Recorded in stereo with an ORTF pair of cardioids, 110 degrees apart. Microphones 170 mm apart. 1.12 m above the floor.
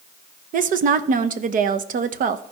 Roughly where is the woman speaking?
Ahead right.